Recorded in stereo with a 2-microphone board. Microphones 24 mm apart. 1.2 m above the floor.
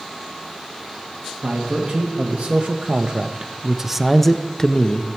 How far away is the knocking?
I don't hear knocking.